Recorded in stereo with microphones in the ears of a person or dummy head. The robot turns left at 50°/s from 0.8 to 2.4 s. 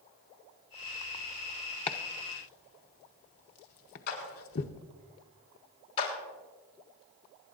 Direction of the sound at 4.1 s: 50° left (ahead or behind).